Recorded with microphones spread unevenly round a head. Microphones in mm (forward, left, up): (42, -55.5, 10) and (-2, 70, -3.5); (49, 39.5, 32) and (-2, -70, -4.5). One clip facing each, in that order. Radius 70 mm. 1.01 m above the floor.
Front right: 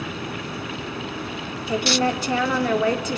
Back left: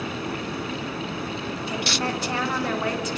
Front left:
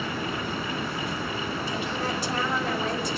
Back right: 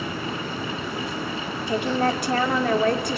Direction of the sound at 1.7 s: 90° right.